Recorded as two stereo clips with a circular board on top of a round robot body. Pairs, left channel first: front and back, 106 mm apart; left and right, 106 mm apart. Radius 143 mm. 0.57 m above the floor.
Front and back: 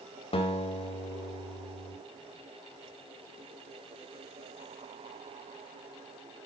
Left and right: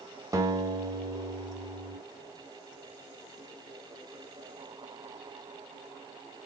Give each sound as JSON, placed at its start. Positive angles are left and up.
{"t": 0.3, "sound": "a guitar", "azimuth_deg": -30, "distance_m": 3.0}